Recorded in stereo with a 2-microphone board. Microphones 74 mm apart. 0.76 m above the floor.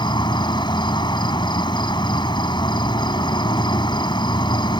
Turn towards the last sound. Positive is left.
turn(degrees=75)  # may be behind; listen again after turning